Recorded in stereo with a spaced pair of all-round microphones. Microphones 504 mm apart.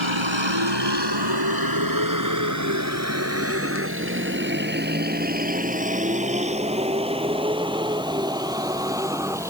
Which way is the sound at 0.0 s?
65° right (ahead or behind).